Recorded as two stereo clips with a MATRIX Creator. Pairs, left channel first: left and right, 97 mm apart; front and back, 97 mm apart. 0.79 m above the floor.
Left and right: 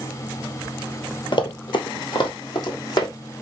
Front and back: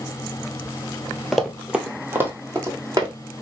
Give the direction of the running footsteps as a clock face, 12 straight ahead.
9 o'clock.